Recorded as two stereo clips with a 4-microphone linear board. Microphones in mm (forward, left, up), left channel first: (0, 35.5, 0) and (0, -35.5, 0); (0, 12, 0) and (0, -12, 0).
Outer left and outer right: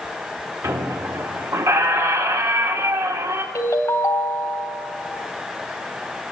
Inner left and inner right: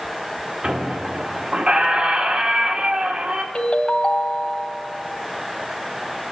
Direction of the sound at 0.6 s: 50° right (ahead or behind).